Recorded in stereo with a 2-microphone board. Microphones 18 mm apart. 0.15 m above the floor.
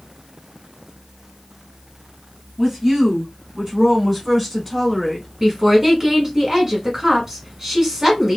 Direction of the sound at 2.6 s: 25° right (ahead or behind).